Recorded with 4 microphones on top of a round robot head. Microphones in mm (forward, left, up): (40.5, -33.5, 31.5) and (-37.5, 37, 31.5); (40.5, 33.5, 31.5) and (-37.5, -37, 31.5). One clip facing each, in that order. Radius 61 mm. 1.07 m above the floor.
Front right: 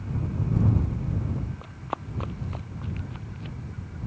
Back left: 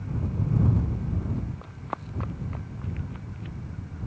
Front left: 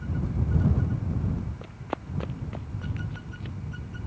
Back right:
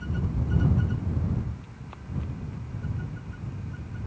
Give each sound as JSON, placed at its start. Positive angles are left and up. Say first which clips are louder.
{"t": 1.6, "sound": "running footsteps", "louder": "front right 2 dB, front left 10 dB", "azimuth_deg": 45}